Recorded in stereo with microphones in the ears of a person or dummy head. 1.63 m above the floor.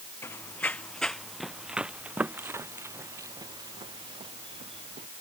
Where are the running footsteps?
15° left (ahead or behind); by 5.1 s 30° right (ahead or behind).